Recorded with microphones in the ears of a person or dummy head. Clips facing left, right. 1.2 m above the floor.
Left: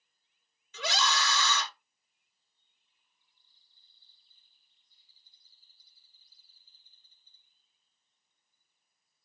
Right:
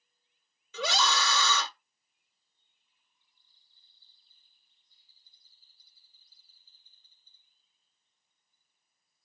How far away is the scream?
About 1.0 m.